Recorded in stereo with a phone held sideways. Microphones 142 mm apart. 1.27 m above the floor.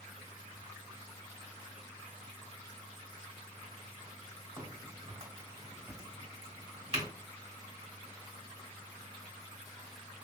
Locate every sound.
4.6 s a crack: 45° right (ahead or behind), 2.5 m